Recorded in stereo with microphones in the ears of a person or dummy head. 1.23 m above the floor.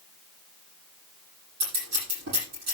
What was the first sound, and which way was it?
Scissors, 55° right (ahead or behind).